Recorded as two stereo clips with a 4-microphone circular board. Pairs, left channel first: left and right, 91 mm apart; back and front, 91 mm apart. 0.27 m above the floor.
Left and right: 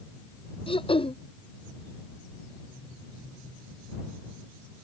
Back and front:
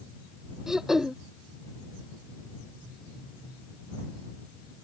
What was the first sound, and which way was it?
Throat clearing, 85° left.